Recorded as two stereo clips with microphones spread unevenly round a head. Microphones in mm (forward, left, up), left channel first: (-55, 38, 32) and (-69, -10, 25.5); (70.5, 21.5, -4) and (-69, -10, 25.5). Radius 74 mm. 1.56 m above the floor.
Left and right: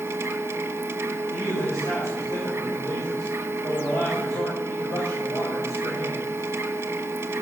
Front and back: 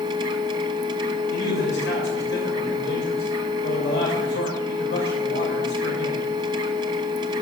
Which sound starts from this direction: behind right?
A machine running, at 0.0 s.